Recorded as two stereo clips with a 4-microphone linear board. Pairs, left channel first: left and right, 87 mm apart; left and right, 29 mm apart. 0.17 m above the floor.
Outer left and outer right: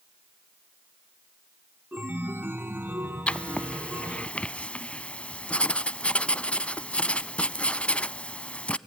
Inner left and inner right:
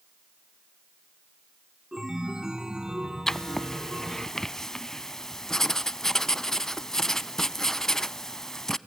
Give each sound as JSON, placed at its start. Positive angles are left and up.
{"t": 1.9, "sound": "a chime", "side_deg": -20, "distance_m": 0.8}
{"t": 3.3, "sound": "writing", "side_deg": 15, "distance_m": 0.5}